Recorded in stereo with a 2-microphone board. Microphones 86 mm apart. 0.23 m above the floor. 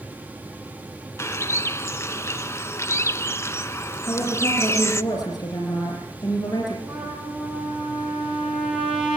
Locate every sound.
1.2 s a bird: 35° left (ahead or behind), 0.6 m
4.0 s a woman speaking: 55° left (ahead or behind), 9 m
6.9 s a trumpet: 5° right (ahead or behind), 7 m